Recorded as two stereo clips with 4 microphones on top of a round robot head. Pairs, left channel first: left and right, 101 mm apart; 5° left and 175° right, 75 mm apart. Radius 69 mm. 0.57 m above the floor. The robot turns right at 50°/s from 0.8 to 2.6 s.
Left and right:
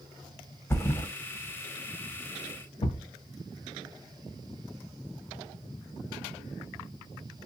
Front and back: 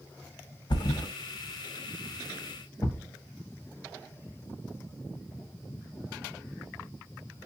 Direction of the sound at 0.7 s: 20° left.